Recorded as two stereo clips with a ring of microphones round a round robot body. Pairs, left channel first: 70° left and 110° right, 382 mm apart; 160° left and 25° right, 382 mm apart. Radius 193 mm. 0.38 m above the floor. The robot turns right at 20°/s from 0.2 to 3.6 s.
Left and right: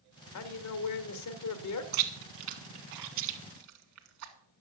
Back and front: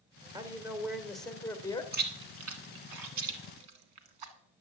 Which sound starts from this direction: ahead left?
A man speaking, at 0.3 s.